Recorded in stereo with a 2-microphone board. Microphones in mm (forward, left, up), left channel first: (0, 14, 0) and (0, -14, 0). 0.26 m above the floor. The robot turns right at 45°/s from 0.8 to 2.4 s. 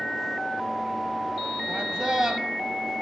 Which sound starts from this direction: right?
A man speaking, at 1.7 s.